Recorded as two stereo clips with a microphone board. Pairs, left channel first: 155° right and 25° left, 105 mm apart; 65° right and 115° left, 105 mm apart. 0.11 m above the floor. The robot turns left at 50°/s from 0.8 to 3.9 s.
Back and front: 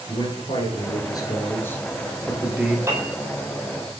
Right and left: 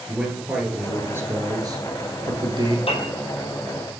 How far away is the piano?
About 1.6 m.